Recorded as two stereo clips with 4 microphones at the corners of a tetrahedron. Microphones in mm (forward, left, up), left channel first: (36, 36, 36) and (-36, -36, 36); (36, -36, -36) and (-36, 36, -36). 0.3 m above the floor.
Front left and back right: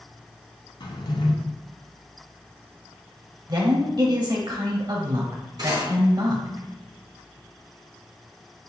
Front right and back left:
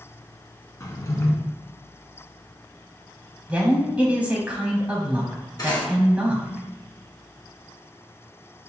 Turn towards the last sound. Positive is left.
turn(degrees=-95)